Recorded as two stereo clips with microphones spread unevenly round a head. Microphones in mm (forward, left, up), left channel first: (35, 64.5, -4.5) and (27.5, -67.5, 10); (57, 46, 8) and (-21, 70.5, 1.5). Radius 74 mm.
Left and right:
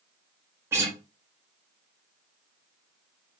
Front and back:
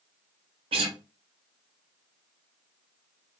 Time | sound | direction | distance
0.7 | a guitar | 165° right | 0.9 m